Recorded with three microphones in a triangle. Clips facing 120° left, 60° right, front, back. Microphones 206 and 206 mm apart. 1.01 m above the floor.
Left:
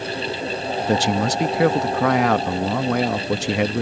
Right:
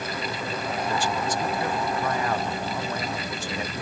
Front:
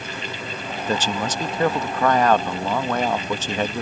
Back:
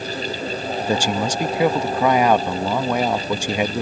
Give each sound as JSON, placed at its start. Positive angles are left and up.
{"t": 0.8, "sound": "a man speaking", "azimuth_deg": 100}